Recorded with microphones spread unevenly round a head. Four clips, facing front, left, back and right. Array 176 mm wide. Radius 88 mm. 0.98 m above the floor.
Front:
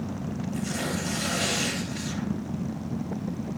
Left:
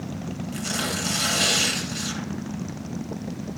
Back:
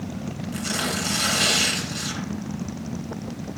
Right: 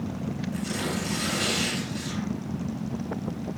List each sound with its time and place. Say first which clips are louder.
0.5 s tearing paper: left 3 dB, back 3 dB; 140° left, 9 m